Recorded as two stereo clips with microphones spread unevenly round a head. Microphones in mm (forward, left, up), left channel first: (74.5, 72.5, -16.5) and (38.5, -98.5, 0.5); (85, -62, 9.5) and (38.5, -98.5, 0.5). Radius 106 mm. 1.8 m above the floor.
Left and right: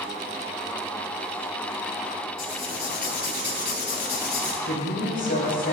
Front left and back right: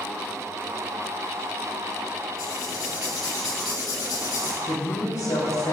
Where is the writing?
45° left, 3.5 m.